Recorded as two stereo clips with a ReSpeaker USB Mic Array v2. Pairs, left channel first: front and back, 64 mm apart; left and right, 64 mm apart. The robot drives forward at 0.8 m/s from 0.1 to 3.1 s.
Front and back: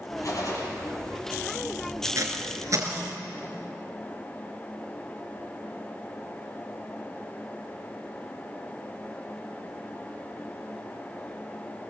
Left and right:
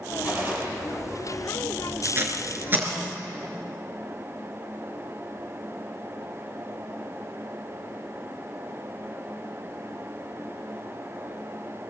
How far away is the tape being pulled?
About 3.5 m.